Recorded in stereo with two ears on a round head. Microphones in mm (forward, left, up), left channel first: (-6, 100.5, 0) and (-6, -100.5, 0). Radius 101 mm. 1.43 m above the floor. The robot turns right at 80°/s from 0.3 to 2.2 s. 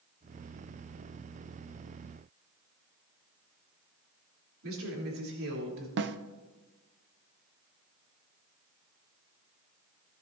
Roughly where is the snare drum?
Right.